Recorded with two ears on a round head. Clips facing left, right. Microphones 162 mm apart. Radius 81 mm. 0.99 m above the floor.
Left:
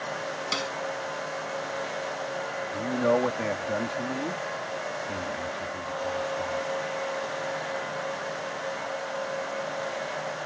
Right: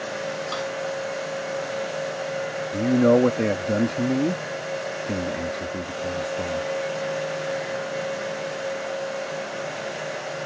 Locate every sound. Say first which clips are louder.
0.5 s a snare drum: right 4 dB; 30° left (ahead or behind)
2.7 s a man speaking: right 7 dB; 50° right (ahead or behind)